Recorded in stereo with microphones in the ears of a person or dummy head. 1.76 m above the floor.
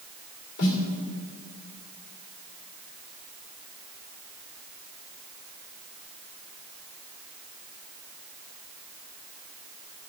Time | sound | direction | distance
0.6 | a snare drum | 60° left (ahead or behind) | 2.5 m